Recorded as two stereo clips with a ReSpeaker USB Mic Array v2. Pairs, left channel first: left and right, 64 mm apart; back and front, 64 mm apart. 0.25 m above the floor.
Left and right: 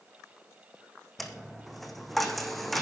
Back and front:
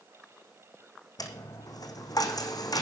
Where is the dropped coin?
175° left, 1.4 m.